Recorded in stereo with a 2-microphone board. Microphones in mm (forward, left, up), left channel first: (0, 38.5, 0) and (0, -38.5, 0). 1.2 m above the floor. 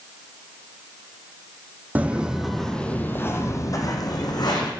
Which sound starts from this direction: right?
Footsteps, at 1.9 s.